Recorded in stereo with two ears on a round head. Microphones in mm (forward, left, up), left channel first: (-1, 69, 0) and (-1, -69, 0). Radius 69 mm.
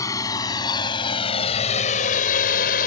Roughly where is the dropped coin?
No dropped coin in this recording.